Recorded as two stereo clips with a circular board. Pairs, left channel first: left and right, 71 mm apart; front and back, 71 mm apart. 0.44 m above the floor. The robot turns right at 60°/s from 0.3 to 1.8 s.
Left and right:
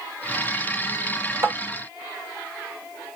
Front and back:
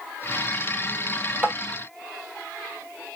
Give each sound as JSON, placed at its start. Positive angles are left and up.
{"t": 1.4, "sound": "tapping", "azimuth_deg": -120, "distance_m": 1.1}